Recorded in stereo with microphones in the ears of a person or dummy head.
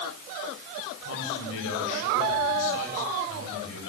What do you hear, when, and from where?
1.0 s a man speaking: 75° left (ahead or behind), 9 m